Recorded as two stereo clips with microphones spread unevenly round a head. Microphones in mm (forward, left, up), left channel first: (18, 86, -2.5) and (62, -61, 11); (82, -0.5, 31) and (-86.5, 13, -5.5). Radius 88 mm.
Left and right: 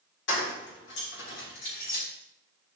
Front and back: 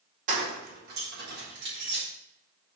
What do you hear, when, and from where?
0.3 s keys jangling: 130° left, 1.8 m; by 2.0 s 150° left, 3.5 m